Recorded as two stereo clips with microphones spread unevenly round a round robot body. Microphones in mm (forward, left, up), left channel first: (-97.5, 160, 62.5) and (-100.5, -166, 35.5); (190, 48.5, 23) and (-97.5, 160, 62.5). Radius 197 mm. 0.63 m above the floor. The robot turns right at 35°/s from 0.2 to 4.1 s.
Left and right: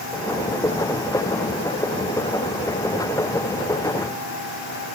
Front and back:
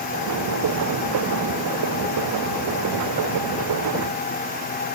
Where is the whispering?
I don't hear whispering.